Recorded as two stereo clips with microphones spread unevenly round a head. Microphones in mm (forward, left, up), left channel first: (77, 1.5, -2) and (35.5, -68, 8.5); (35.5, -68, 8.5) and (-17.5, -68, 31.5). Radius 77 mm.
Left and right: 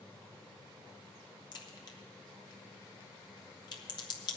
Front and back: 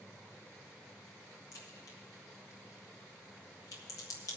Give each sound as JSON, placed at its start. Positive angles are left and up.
{"t": 1.5, "sound": "a crack", "azimuth_deg": 25, "distance_m": 1.2}